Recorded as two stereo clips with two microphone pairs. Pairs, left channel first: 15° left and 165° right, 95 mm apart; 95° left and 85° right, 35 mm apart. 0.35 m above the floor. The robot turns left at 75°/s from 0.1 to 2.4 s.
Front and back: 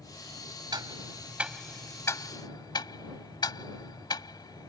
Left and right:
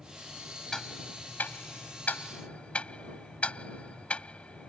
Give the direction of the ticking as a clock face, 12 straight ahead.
6 o'clock.